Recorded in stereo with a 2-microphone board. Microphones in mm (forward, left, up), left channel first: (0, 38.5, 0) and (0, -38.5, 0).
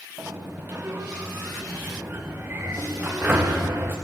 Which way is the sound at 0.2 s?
25° right (ahead or behind).